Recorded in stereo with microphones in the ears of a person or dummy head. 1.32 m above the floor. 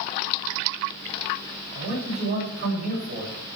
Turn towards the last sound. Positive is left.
turn(degrees=-55)  # may be behind; listen again after turning